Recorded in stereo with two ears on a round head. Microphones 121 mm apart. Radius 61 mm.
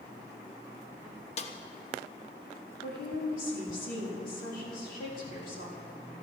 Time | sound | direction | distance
1.4 | a snare drum | 50° left (ahead or behind) | 1.0 m
2.8 | a woman speaking | 65° left (ahead or behind) | 3.5 m